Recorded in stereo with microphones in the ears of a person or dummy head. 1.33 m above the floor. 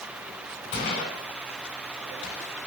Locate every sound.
0.7 s a gunshot: 25° left (ahead or behind), 1.2 m